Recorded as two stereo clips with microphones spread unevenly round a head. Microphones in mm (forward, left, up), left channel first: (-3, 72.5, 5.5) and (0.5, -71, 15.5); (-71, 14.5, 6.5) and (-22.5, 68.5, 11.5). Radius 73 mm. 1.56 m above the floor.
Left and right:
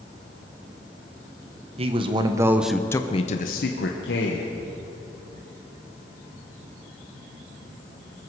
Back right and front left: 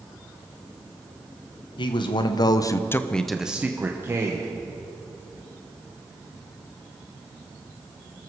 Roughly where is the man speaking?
Behind right.